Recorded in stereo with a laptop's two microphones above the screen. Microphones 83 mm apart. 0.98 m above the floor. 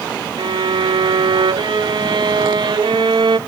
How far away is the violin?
About 0.7 m.